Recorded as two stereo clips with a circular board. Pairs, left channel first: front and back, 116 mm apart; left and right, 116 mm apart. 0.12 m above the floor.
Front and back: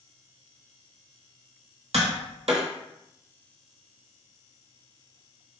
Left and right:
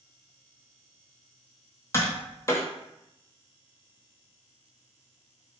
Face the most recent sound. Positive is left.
turn(degrees=155)